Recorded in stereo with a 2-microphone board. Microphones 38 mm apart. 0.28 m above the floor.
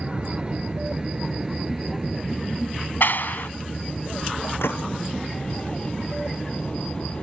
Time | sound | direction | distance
0.0 | an aircraft | 30° right (ahead or behind) | ?
3.0 | a clap | 60° left (ahead or behind) | ?
4.6 | a gunshot | 80° left | ?